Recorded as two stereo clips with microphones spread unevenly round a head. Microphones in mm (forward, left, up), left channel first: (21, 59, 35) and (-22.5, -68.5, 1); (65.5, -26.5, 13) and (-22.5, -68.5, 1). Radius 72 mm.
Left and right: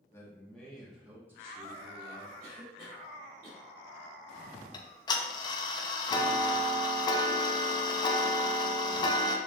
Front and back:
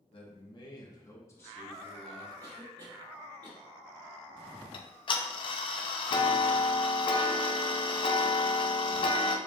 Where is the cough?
135° right, 2.5 m.